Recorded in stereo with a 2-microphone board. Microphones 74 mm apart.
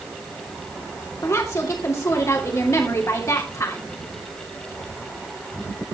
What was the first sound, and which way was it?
A woman speaking, 45° left (ahead or behind).